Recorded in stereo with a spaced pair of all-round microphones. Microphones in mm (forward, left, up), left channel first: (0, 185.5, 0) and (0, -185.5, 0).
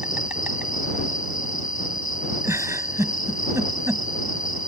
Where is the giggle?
5° right (ahead or behind).